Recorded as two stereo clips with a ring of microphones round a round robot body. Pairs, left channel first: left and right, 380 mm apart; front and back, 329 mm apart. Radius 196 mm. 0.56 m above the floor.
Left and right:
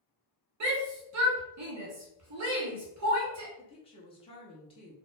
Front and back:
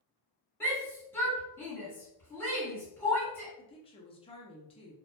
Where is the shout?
80° right, 1.0 m.